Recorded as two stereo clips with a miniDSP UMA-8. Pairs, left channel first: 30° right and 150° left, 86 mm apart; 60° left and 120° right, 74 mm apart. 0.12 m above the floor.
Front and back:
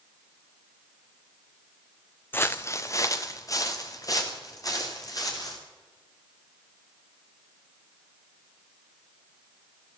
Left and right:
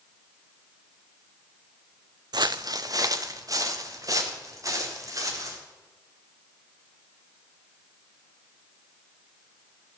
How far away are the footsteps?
About 0.5 m.